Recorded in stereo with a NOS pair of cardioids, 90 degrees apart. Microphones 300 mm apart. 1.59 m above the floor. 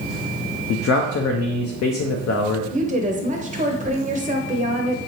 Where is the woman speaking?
25° right, 0.7 m.